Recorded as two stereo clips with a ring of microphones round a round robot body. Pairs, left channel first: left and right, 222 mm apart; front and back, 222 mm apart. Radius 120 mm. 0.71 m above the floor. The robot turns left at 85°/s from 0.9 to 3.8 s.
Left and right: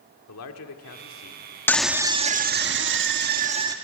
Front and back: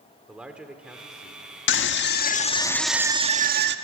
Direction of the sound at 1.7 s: 10° left.